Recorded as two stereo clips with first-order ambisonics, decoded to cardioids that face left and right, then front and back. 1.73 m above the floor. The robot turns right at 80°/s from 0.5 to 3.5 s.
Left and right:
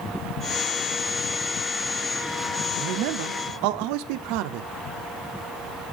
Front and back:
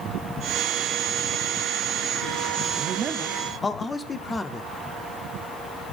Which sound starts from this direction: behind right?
A man speaking, at 2.8 s.